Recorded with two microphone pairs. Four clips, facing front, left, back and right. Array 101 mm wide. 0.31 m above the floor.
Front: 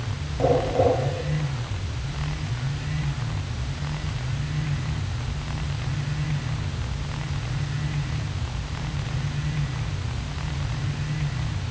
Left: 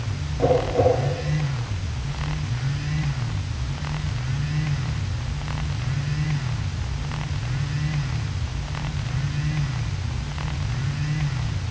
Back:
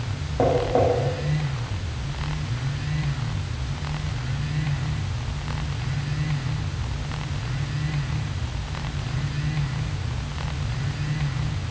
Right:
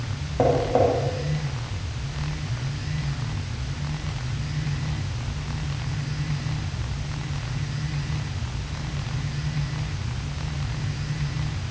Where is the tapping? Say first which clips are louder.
Even, back 1 dB; 130° right, 9.5 m.